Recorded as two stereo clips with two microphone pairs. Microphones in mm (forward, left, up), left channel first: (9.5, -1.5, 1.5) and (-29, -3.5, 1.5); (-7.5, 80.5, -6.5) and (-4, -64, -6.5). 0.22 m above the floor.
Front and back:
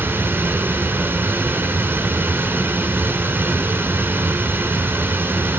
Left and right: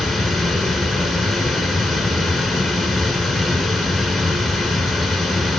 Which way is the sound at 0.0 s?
175° right.